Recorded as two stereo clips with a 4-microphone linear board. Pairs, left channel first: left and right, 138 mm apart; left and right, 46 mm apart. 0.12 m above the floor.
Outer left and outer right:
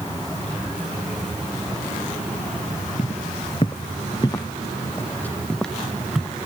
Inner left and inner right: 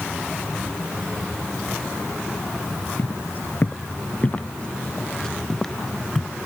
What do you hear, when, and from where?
3.0 s footsteps: 50° left (ahead or behind); by 6.4 s 5° right (ahead or behind)